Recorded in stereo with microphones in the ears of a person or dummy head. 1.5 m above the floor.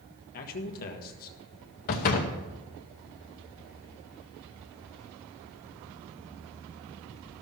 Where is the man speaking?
50° left (ahead or behind), 1.5 m.